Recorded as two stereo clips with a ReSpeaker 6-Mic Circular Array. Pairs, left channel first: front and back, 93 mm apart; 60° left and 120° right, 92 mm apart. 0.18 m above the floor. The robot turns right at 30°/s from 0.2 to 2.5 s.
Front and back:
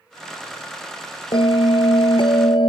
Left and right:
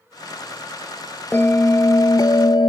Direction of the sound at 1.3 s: 10° right.